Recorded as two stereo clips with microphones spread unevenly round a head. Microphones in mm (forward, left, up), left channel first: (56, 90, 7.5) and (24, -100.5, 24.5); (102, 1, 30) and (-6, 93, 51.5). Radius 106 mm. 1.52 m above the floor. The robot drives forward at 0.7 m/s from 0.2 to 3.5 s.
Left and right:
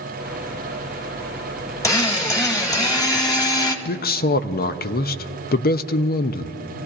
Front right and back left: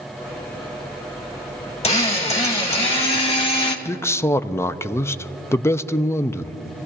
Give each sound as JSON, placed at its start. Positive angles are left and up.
{"t": 1.8, "sound": "a drill", "azimuth_deg": 5, "distance_m": 2.5}
{"t": 3.9, "sound": "a man speaking", "azimuth_deg": 35, "distance_m": 0.6}